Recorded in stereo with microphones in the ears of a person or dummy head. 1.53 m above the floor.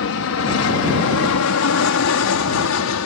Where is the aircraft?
65° left (ahead or behind); by 3.1 s 70° left (ahead or behind).